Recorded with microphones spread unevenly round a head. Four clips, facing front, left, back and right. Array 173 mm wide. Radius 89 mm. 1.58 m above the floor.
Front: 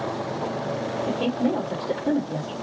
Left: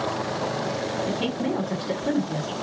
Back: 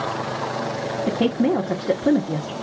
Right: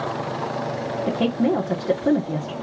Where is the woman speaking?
155° right, 1.5 m.